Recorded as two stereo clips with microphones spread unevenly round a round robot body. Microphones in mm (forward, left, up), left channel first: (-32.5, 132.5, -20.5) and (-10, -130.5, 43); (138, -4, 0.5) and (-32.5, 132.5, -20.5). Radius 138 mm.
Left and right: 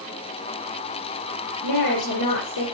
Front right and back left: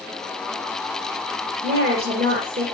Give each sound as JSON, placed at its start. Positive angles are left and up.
{"t": 1.6, "sound": "a woman speaking", "azimuth_deg": 100, "distance_m": 7.0}